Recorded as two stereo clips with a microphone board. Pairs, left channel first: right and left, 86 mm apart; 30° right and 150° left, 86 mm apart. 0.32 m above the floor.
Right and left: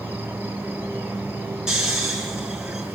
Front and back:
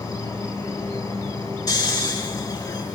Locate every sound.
0.0 s an insect: 20° left, 6 m
1.7 s snoring: 10° left, 5.5 m